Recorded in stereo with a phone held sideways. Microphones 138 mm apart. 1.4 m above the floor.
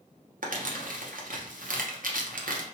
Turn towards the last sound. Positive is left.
turn(degrees=-85)